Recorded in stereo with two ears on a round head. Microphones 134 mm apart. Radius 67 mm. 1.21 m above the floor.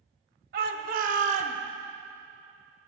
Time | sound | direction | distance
0.5 | a shout | 65° right (ahead or behind) | 1.4 m